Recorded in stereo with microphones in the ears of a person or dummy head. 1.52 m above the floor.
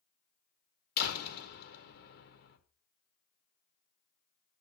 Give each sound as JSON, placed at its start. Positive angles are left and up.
{"t": 1.0, "sound": "a door slam", "side_deg": 60, "distance_m": 1.6}